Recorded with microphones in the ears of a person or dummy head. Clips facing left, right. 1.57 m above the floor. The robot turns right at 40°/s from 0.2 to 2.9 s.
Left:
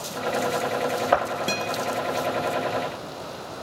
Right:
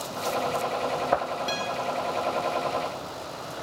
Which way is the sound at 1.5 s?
40° left (ahead or behind).